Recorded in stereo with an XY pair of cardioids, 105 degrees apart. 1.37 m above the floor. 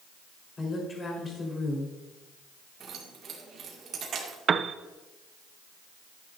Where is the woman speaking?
35° left, 4.5 m.